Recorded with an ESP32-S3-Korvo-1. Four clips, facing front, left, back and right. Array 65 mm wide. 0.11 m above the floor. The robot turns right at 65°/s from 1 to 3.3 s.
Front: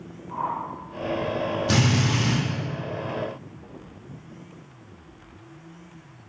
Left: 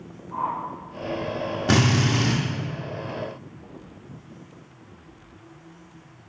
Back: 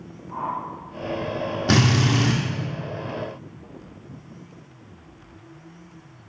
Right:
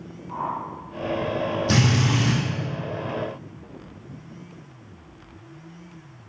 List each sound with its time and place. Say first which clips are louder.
0.3 s a whoosh: left 1 dB, even; 85° right, 2.5 m
1.7 s a drill: left 3 dB, back 5 dB; 125° left, 1.9 m; by 2.4 s 170° left, 1.9 m